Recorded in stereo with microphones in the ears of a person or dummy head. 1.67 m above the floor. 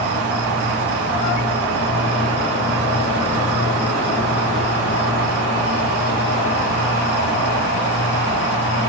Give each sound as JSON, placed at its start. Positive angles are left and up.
{"t": 0.0, "sound": "an insect", "side_deg": 55, "distance_m": 4.5}